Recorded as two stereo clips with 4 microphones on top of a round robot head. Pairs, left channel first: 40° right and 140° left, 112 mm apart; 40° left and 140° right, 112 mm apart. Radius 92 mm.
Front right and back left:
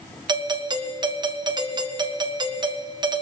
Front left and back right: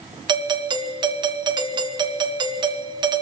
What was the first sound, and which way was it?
A doorbell, straight behind.